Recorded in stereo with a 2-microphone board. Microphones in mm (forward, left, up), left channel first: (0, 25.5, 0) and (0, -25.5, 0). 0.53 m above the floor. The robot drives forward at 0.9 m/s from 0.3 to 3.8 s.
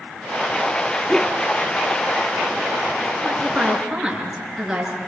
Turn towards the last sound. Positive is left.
turn(degrees=0)  # may be behind; listen again after turning